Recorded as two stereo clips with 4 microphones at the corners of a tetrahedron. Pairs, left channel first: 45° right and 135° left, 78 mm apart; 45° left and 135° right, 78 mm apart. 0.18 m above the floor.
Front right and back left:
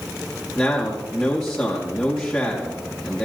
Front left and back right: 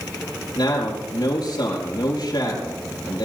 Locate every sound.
0.6 s a man speaking: 40° left, 5.5 m